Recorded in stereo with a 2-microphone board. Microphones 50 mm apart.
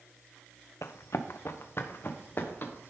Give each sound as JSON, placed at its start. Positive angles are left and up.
{"t": 0.8, "sound": "running footsteps", "side_deg": 75, "distance_m": 0.9}